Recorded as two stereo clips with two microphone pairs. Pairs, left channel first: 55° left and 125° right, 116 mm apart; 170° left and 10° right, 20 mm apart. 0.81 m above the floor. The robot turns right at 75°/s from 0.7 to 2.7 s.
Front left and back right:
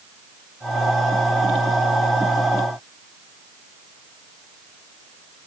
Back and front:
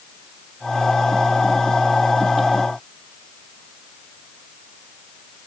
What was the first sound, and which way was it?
Only background noise.